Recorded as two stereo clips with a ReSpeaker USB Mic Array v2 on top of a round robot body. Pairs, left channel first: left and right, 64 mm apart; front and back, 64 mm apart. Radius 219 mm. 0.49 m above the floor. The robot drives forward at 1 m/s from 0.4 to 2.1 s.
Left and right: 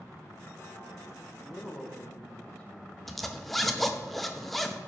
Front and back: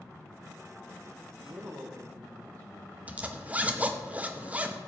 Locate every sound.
1.4 s a woman speaking: 155° left, 2.5 m; by 3.0 s 160° left, 3 m
3.1 s a zipper: 175° left, 1.2 m